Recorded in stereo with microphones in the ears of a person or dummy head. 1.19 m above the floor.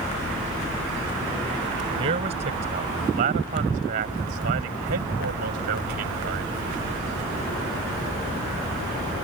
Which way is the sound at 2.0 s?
40° right (ahead or behind).